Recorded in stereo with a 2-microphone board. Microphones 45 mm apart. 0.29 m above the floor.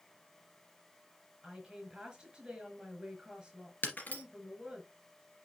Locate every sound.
1.4 s a woman speaking: 20° right (ahead or behind), 4.5 m
3.8 s breaking glass: 45° left (ahead or behind), 2.5 m